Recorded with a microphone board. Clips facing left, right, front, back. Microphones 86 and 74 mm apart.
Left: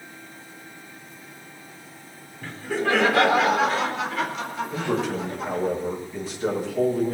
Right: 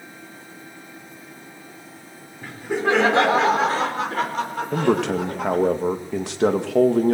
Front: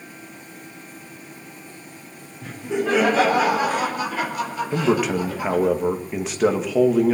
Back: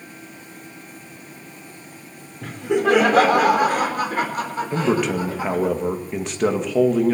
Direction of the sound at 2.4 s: 165° right.